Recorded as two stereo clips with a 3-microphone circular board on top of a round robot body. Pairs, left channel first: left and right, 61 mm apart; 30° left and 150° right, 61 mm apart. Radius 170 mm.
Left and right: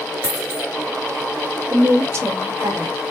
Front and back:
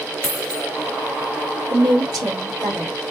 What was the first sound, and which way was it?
A dropped coin, 55° right.